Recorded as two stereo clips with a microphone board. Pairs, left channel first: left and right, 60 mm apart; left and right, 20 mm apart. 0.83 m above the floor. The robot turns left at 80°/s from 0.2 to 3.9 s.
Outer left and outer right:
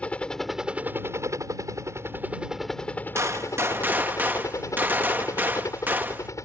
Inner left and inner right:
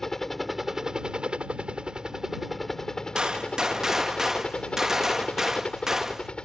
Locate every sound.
0.0 s a helicopter: 20° left (ahead or behind); by 6.5 s 60° left (ahead or behind)
3.1 s a gunshot: 80° right; by 6.3 s 140° right